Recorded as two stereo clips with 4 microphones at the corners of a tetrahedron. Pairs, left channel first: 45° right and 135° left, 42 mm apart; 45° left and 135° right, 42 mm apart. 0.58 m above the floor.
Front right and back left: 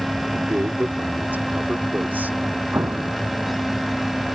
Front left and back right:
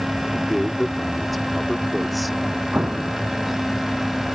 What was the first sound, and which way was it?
A man speaking, 135° left.